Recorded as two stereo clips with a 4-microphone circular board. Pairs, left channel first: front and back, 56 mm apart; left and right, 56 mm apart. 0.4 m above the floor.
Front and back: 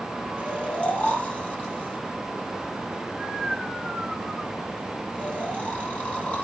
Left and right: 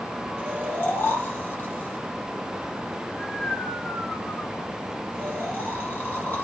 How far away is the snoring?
About 1.4 m.